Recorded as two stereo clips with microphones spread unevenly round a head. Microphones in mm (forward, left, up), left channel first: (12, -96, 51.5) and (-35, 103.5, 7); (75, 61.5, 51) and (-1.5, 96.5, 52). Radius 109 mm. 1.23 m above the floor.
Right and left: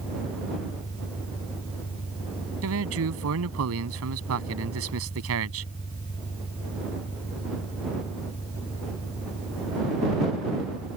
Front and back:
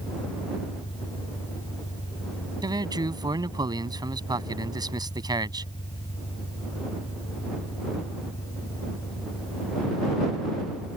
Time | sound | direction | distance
0.0 | an engine running | 15° right | ?
2.6 | a man speaking | 115° left | ?